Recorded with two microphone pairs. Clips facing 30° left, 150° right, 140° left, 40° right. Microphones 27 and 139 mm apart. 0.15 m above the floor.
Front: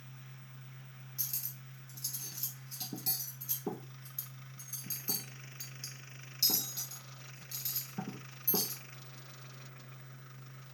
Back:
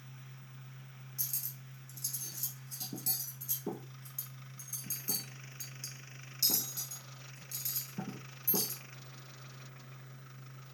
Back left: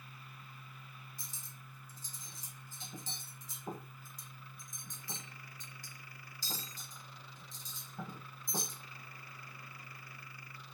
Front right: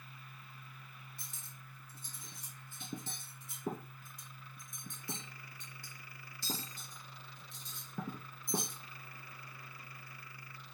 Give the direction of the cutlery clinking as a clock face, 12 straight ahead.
1 o'clock.